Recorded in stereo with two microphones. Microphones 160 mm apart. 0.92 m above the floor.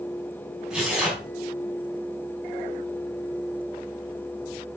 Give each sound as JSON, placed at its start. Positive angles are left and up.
{"t": 0.7, "sound": "tearing paper", "side_deg": -5, "distance_m": 5.5}